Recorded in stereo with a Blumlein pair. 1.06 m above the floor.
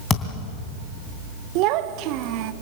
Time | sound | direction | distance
0.1 | a thud | 15° left | 2.5 m
1.6 | a child speaking | 40° right | 1.1 m